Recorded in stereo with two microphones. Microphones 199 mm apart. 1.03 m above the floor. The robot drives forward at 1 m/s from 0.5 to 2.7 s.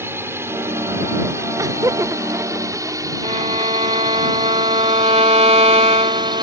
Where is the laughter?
15° right (ahead or behind); by 4.2 s 10° right (ahead or behind).